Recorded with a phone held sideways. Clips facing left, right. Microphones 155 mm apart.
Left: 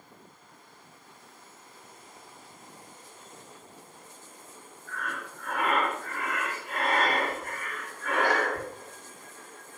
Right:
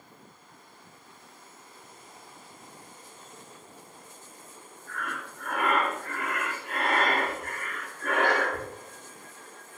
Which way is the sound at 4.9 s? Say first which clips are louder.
Even; 60° right (ahead or behind).